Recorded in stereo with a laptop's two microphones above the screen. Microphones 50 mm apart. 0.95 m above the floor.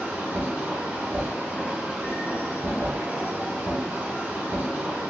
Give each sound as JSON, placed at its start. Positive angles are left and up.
{"t": 0.0, "sound": "a machine running", "side_deg": -30, "distance_m": 1.1}